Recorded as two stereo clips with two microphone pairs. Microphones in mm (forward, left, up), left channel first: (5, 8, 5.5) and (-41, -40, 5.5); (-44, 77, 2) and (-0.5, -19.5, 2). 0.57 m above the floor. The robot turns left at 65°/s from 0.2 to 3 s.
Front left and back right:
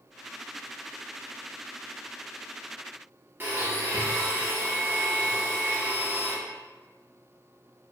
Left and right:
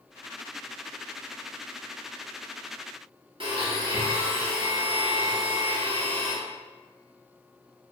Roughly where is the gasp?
No gasp in this recording.